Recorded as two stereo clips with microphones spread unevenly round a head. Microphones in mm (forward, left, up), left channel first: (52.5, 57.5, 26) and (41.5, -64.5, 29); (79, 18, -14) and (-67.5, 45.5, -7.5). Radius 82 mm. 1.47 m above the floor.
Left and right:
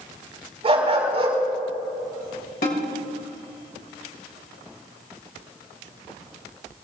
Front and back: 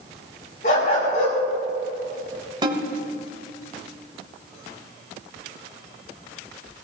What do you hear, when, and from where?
0.6 s a dog barking: 55° right, 5.5 m
2.6 s a snare drum: 115° left, 2.5 m